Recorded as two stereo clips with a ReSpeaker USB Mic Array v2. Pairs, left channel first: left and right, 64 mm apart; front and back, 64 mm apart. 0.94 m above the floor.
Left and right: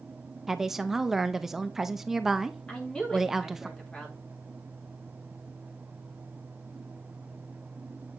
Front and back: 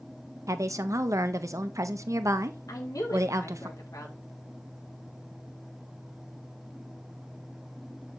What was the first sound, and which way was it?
A woman speaking, 170° right.